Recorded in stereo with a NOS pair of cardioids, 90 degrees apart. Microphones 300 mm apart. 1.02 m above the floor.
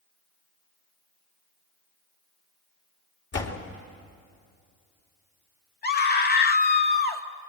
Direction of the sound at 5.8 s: 30° left.